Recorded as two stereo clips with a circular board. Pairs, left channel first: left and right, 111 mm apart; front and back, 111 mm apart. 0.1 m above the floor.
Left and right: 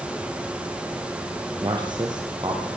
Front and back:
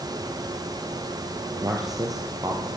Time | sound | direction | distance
1.6 | a man speaking | 130° right | 2.5 m